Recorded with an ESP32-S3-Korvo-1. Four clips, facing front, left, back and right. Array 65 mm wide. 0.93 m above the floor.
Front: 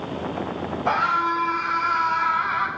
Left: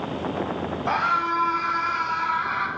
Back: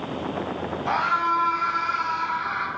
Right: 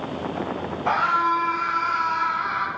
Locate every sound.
0.9 s a scream: 55° right, 2.5 m; by 2.7 s straight ahead, 1.5 m